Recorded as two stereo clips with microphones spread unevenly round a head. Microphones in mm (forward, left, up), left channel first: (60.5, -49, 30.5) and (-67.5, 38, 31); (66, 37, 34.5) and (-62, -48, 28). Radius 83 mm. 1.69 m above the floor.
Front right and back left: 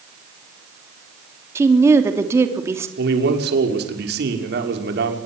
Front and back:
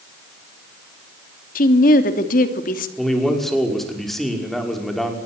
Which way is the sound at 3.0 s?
120° left.